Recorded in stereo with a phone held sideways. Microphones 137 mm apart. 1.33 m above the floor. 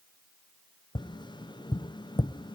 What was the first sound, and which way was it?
Tapping, 35° left (ahead or behind).